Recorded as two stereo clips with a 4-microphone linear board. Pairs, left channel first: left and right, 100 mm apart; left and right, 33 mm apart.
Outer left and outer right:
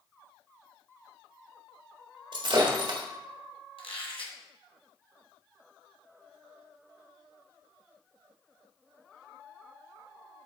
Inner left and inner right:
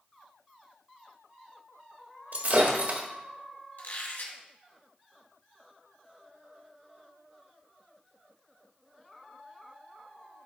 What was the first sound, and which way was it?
Breaking glass, 60° right (ahead or behind).